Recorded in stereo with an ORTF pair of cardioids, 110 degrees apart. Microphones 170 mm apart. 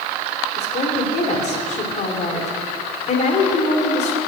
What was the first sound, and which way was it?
A woman speaking, 45° left.